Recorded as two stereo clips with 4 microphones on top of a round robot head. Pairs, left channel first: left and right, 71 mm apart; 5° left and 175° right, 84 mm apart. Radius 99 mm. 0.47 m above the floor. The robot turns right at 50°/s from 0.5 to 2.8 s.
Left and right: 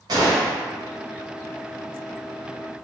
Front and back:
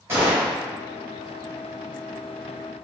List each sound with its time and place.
0.1 s a gunshot: 115° right, 1.5 m; by 0.6 s 110° right, 1.5 m